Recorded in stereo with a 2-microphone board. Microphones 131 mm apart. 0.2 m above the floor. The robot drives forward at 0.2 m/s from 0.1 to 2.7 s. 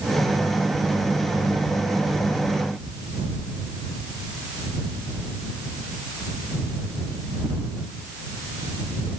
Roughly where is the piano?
No piano in this recording.